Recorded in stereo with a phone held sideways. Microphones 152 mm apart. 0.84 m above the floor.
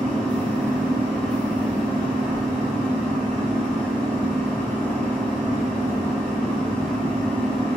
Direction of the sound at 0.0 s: 10° left (ahead or behind).